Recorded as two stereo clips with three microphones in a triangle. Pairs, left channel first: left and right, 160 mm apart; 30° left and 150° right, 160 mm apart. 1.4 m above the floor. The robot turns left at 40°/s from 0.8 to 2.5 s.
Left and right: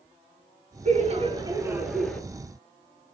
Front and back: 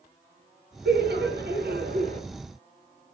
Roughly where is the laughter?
Behind right.